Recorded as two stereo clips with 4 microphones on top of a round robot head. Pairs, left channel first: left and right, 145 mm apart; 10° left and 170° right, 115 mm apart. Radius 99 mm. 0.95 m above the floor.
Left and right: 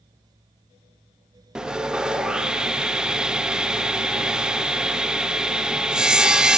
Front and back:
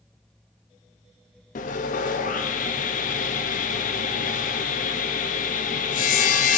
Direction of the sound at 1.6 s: 5° right.